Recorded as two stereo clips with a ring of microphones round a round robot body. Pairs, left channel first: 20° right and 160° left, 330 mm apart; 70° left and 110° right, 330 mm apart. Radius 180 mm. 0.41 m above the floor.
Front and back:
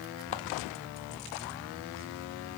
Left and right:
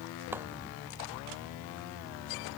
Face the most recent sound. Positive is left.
turn(degrees=-30)